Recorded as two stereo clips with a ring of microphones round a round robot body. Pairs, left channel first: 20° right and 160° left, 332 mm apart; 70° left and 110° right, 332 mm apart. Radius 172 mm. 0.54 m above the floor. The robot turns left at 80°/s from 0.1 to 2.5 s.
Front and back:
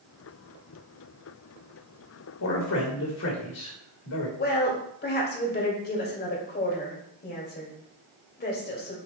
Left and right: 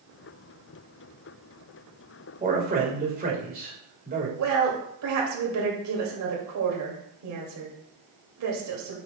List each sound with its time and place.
2.4 s a man speaking: 45° right, 3 m; by 4.3 s 55° right, 3 m
4.4 s a woman speaking: 80° right, 2.5 m